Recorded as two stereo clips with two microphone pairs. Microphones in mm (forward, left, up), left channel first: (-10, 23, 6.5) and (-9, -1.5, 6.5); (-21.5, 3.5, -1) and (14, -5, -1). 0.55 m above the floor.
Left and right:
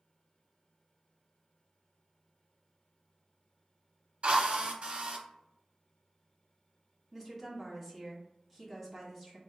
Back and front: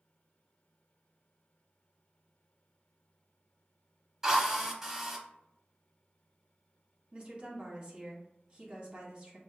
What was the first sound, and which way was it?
A drill, 85° right.